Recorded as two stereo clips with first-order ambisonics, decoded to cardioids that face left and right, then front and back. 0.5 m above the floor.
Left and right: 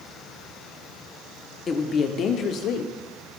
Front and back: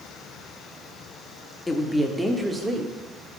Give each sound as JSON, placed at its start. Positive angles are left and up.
{"t": 1.7, "sound": "a woman speaking", "azimuth_deg": 65, "distance_m": 0.7}